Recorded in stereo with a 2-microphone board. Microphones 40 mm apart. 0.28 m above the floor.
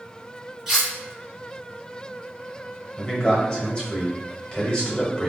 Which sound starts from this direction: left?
A man speaking, at 3.0 s.